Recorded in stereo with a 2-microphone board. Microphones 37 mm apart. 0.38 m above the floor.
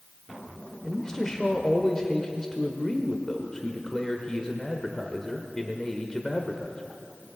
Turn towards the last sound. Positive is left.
turn(degrees=20)  # may be behind; listen again after turning